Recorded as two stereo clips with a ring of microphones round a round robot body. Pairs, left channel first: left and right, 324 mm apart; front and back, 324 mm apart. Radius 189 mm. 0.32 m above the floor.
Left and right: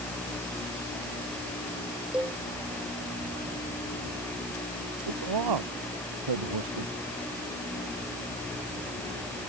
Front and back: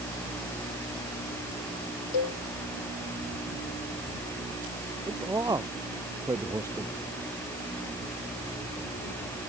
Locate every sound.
2.1 s a cowbell: 5° right
5.1 s a man speaking: 100° right